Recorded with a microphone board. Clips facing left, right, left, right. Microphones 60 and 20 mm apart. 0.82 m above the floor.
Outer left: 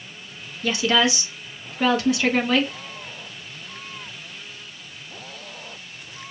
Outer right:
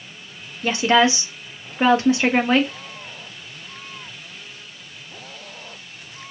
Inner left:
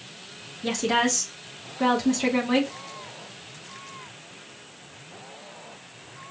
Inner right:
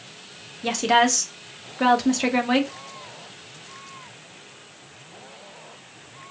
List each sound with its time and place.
0.6 s a woman speaking: 30° right (ahead or behind), 0.8 m